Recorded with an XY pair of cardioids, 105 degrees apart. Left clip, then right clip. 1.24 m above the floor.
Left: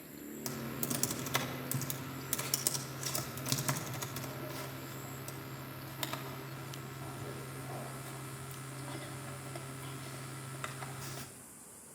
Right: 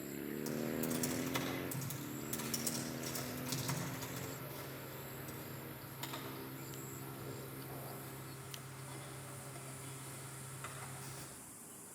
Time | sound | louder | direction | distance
0.5 | typing on a keyboard | left 1 dB | 70° left | 3 m